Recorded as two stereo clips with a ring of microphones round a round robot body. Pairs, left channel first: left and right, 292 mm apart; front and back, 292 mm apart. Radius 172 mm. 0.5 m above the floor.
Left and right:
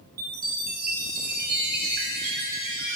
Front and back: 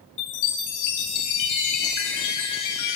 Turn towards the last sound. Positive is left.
turn(degrees=-25)